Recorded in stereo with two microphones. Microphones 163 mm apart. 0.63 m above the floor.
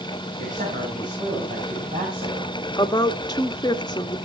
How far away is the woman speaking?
About 0.9 m.